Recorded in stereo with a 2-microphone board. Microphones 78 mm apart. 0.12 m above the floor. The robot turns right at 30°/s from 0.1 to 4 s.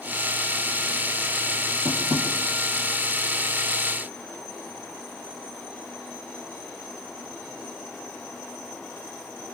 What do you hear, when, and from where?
1.9 s tapping: 55° right (ahead or behind), 3 m; by 2.3 s 65° right (ahead or behind), 3 m